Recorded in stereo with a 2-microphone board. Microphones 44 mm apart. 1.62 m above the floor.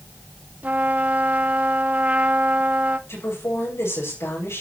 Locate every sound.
0.6 s a trumpet: 40° right (ahead or behind), 1.0 m
3.1 s a woman speaking: 80° left, 7.5 m